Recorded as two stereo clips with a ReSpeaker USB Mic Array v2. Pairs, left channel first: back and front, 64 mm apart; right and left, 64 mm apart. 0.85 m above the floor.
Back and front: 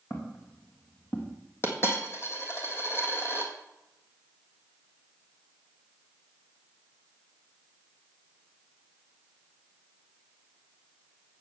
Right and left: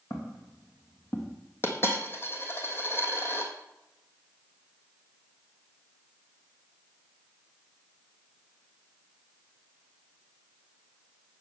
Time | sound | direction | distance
0.1 | footsteps | 130° right | 3 m
1.6 | a dropped coin | 135° right | 1.9 m